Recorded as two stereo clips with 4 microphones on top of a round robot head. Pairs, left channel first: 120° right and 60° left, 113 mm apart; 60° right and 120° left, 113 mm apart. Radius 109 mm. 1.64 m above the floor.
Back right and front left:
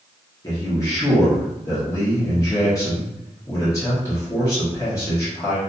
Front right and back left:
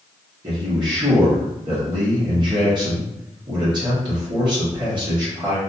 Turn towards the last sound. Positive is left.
turn(degrees=175)